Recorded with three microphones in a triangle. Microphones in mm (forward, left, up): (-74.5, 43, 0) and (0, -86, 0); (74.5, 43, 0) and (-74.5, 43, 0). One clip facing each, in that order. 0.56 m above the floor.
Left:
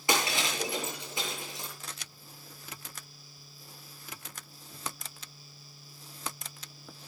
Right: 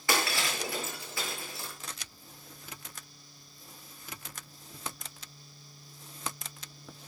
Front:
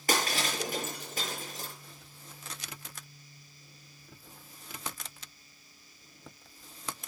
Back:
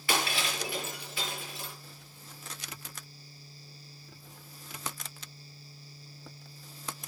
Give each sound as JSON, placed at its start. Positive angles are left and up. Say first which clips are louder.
{"t": 0.1, "sound": "breaking glass", "louder": "left 1 dB, front 1 dB", "azimuth_deg": 50, "distance_m": 7.5}